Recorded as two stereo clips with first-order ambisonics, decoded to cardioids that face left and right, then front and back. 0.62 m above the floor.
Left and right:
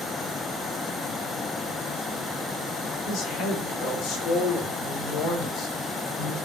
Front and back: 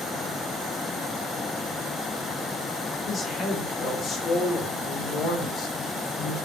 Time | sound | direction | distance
3.1 | a woman speaking | 60° left | 2 m